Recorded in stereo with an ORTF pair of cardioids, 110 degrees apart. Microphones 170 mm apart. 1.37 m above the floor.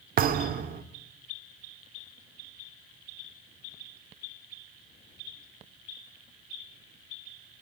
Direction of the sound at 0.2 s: 60° right.